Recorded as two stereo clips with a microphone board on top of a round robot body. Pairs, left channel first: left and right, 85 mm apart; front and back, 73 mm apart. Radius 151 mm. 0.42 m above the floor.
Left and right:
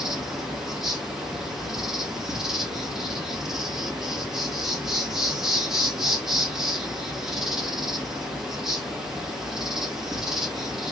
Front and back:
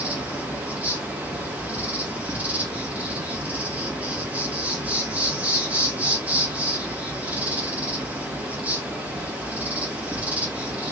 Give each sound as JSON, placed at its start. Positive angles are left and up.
{"t": 0.0, "sound": "an insect", "azimuth_deg": -160, "distance_m": 1.9}